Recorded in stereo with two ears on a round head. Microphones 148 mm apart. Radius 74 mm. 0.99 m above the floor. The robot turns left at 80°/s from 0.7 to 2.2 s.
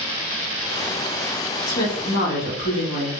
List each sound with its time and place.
1.7 s a woman speaking: 125° left, 1.6 m; by 3.1 s 85° left, 1.6 m